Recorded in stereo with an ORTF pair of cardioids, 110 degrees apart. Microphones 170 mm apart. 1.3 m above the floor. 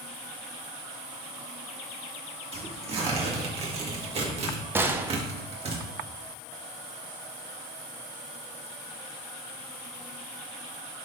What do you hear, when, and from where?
2.5 s tearing paper: 40° right, 1.9 m
4.8 s a gunshot: 15° right, 0.7 m